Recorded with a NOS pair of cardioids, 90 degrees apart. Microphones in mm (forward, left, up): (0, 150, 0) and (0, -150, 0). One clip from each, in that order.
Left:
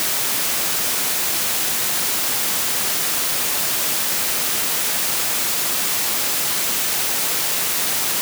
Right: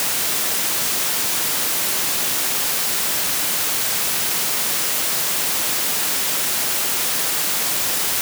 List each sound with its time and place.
Only background noise.